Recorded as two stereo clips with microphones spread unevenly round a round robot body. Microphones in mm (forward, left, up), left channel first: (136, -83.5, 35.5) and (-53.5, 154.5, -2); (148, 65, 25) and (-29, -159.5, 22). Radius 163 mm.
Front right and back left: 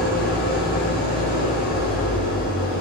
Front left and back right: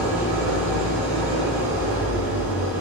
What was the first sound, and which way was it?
An engine running, 155° right.